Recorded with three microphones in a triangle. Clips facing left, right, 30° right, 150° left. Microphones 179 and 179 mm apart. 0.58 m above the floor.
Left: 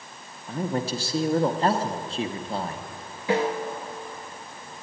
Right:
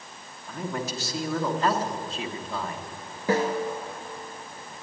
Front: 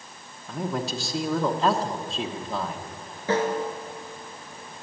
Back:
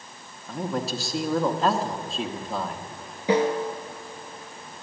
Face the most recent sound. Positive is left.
turn(degrees=-135)